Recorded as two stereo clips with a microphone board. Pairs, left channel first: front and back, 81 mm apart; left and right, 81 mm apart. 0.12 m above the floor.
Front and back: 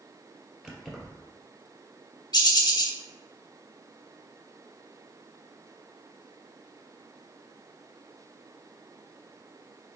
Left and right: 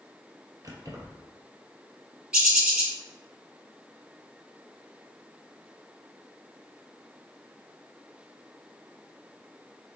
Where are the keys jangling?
100° right, 1.2 m.